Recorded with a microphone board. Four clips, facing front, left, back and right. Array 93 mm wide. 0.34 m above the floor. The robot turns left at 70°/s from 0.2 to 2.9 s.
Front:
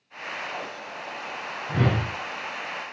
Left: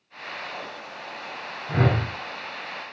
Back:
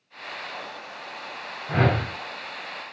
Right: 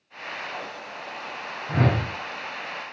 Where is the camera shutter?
I don't hear a camera shutter.